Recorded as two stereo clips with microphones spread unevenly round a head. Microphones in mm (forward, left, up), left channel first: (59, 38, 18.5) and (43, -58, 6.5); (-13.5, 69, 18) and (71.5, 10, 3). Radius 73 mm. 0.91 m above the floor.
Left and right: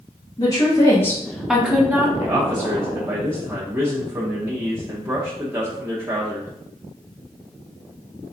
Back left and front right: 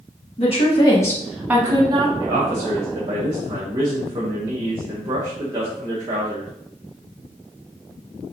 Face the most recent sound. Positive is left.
turn(degrees=-60)